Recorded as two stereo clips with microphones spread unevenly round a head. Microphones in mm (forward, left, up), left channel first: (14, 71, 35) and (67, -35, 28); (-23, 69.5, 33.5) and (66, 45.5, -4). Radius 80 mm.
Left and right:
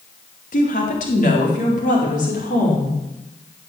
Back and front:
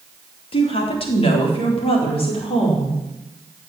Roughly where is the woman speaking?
Behind left.